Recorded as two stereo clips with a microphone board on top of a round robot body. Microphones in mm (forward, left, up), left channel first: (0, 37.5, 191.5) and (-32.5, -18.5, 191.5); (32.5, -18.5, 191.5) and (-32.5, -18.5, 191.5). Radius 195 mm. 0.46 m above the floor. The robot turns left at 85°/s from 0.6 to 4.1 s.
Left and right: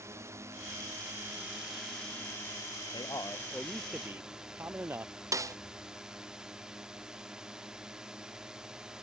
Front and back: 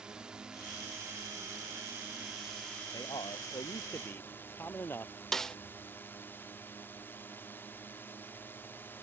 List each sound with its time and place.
0.0 s a drone: 105° right; by 9.0 s 45° right
2.9 s a man speaking: 40° left; by 5.1 s 60° right
5.3 s a snare drum: 80° right